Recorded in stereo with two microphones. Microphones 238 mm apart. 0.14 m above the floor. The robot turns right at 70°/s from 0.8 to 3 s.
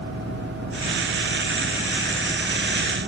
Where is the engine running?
75° left; by 3.1 s 130° right.